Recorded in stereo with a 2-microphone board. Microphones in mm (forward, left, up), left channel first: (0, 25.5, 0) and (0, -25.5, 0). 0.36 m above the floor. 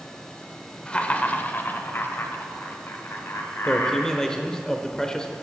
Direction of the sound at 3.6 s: 10° left (ahead or behind).